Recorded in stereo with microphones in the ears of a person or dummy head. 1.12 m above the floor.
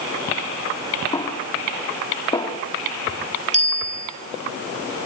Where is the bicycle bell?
35° right (ahead or behind), 5 m.